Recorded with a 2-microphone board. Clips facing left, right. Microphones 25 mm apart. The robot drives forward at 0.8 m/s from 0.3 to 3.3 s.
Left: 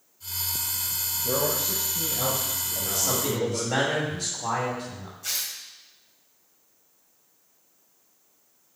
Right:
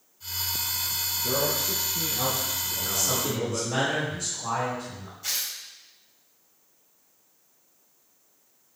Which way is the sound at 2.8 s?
50° left (ahead or behind).